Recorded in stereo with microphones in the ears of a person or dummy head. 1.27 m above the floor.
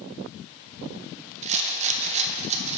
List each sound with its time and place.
1.4 s a rattle: 40° right (ahead or behind), 0.7 m